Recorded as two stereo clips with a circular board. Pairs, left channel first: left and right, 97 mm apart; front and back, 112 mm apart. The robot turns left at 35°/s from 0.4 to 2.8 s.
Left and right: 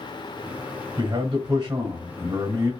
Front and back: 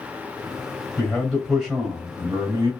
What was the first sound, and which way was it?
A man speaking, 75° right.